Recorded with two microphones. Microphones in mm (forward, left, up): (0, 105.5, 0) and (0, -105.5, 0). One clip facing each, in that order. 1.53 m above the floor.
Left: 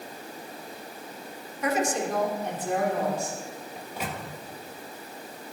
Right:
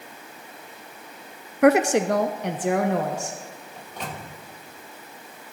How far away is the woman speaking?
About 0.6 m.